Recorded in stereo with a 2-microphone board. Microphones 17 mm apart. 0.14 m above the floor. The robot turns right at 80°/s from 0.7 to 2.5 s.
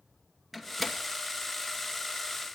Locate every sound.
0.5 s a door slam: 10° right (ahead or behind), 2 m; by 1.0 s 10° left (ahead or behind), 2 m